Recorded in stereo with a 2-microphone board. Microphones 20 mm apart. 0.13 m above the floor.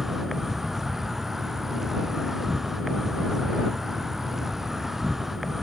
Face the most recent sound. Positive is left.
turn(degrees=-20)  # may be behind; listen again after turning